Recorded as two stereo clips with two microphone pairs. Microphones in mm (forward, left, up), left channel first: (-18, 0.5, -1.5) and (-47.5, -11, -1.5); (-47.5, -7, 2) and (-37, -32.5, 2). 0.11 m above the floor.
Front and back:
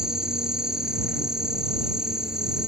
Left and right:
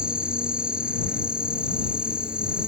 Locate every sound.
0.0 s an insect: 100° right